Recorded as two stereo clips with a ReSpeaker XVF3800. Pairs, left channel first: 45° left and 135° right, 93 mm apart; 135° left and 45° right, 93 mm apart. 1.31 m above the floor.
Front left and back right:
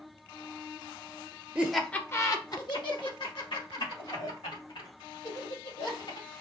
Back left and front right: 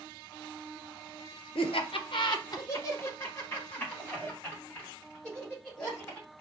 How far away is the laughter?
About 0.6 m.